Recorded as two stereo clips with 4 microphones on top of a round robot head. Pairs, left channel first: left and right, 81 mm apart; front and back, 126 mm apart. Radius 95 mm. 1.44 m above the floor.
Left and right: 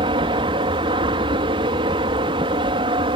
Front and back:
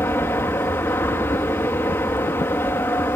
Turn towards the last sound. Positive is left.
turn(degrees=-75)